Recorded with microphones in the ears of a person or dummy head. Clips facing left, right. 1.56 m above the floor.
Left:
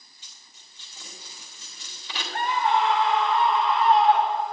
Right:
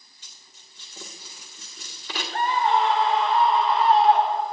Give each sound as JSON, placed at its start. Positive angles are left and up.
{"t": 0.2, "sound": "a dropped coin", "side_deg": -40, "distance_m": 1.6}
{"t": 2.3, "sound": "a scream", "side_deg": -25, "distance_m": 0.9}